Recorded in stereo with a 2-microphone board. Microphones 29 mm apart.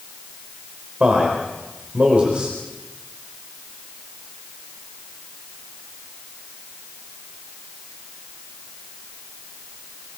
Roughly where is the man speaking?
Right.